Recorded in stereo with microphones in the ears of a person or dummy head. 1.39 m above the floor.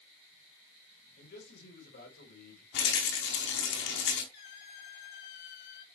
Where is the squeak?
55° left (ahead or behind), 1.6 m.